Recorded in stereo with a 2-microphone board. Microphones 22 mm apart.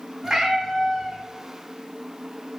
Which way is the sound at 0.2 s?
20° right (ahead or behind).